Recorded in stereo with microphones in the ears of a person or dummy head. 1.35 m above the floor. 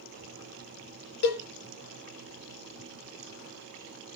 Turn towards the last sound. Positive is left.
turn(degrees=60)  # may be behind; listen again after turning